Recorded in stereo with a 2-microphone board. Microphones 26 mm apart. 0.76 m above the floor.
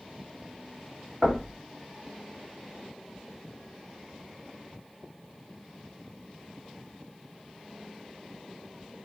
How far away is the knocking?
About 1.1 m.